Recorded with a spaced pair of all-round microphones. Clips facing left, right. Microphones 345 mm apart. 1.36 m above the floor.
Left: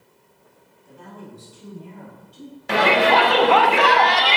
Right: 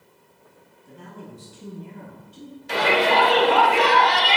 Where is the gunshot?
No gunshot in this recording.